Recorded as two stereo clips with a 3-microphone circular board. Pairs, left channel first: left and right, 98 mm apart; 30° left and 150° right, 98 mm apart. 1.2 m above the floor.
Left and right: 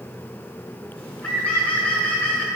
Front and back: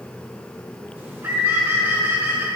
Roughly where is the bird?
Behind.